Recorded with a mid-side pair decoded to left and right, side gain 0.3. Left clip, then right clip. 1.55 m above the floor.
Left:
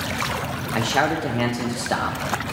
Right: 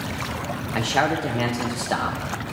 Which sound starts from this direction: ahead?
A man speaking, at 0.8 s.